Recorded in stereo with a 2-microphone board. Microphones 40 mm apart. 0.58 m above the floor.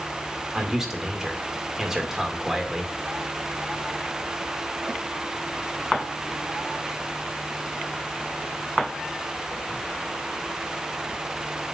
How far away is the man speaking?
About 2 m.